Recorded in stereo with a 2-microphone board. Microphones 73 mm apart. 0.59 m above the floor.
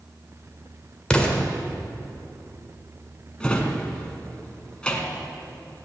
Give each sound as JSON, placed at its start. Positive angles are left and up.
{"t": 1.1, "sound": "an explosion", "side_deg": 15, "distance_m": 1.6}
{"t": 3.4, "sound": "a drawer", "side_deg": 15, "distance_m": 1.5}